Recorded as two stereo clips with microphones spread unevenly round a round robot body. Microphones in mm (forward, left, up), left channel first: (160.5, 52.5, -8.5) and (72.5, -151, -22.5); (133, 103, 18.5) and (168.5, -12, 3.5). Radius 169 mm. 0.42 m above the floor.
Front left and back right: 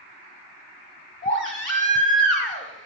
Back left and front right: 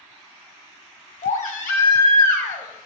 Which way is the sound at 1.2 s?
145° left.